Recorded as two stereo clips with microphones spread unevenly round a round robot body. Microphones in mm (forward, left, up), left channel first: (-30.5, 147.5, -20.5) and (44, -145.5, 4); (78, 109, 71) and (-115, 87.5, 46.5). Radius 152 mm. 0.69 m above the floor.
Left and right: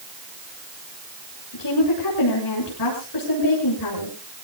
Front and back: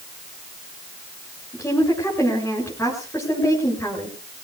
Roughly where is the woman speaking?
Left.